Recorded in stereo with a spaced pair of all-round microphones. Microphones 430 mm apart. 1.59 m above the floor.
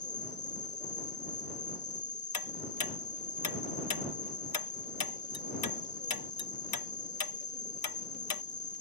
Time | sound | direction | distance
0.0 | an insect | 40° left (ahead or behind) | ?
2.3 | ticking | 55° left (ahead or behind) | ?